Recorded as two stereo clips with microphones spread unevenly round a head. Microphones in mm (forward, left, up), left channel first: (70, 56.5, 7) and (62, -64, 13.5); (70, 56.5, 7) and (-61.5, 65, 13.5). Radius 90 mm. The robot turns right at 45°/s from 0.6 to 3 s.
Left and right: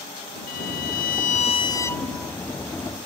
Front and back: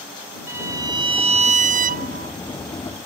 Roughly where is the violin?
Left.